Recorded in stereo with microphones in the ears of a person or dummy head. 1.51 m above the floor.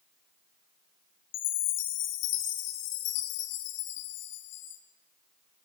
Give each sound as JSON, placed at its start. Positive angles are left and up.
{"t": 1.3, "sound": "a chime", "side_deg": 65, "distance_m": 1.9}